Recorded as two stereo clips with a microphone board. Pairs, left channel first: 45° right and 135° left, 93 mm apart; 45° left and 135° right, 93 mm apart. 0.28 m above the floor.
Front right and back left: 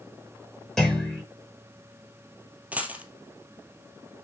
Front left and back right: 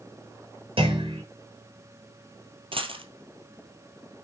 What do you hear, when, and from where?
0.8 s a clunk: 130° right, 5.5 m
2.7 s a dropped coin: 150° right, 1.7 m